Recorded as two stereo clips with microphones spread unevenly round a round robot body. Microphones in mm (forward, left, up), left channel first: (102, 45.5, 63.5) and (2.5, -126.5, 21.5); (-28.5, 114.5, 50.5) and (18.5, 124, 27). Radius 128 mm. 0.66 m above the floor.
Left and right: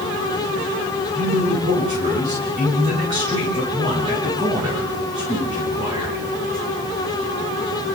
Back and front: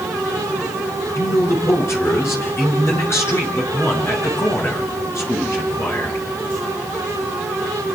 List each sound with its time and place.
1.1 s a man speaking: 170° left, 10 m